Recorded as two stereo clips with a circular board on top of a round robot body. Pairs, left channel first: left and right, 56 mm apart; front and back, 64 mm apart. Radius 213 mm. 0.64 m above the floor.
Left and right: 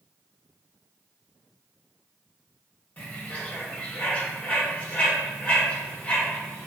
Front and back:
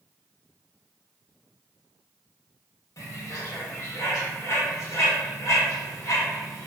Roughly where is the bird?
Ahead left.